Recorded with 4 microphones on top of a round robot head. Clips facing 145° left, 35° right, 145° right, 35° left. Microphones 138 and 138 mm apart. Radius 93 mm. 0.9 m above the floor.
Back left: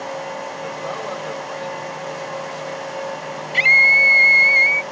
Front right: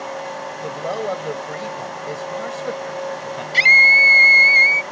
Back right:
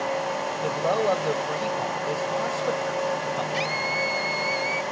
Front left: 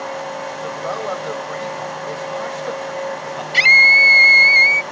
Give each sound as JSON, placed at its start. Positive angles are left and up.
{"t": 0.6, "sound": "a man speaking", "azimuth_deg": -85}
{"t": 3.5, "sound": "a scream", "azimuth_deg": 20}